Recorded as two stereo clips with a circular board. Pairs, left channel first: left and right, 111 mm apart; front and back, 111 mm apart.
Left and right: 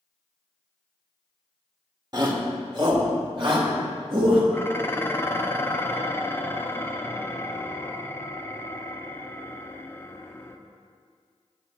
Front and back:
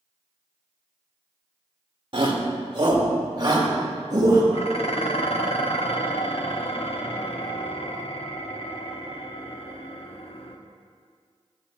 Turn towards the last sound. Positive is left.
turn(degrees=25)